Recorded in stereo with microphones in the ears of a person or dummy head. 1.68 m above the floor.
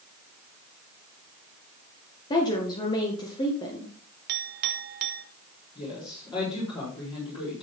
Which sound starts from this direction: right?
A clink, at 4.3 s.